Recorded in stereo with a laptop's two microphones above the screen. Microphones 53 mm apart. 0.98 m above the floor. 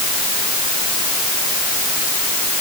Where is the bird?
I don't hear a bird.